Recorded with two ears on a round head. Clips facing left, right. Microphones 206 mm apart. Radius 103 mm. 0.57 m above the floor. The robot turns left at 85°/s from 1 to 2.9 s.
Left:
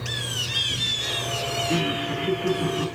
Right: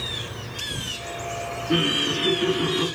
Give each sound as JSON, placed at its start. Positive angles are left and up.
{"t": 1.7, "sound": "laughter", "azimuth_deg": -15, "distance_m": 6.5}